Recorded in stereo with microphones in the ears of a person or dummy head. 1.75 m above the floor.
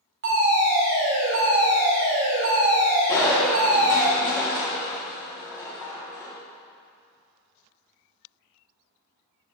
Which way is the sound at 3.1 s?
15° left (ahead or behind).